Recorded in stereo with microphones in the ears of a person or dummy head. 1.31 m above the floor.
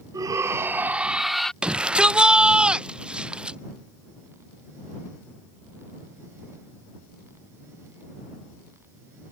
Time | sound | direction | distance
0.1 | a shout | 25° right (ahead or behind) | ?
1.6 | a shout | 5° right (ahead or behind) | ?